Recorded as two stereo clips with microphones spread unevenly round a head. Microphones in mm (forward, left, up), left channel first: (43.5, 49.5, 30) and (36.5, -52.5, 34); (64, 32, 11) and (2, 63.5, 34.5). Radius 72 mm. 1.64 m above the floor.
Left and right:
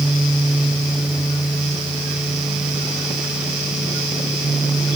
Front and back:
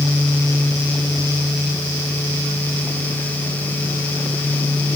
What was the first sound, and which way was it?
Only background noise.